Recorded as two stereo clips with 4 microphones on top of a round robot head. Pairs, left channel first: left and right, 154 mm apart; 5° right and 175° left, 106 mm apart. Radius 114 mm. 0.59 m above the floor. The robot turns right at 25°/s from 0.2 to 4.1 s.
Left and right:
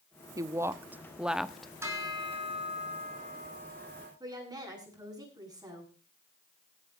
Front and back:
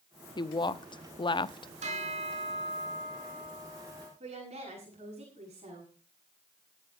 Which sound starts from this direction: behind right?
A woman speaking, at 4.2 s.